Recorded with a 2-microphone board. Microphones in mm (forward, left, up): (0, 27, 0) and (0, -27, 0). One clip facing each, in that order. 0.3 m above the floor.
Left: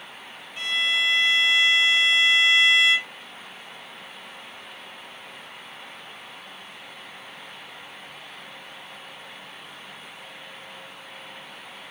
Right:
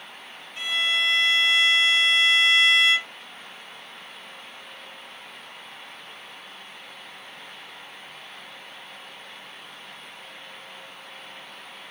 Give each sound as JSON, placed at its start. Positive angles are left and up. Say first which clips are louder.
{"t": 0.6, "sound": "a violin", "louder": "even", "side_deg": 5, "distance_m": 1.2}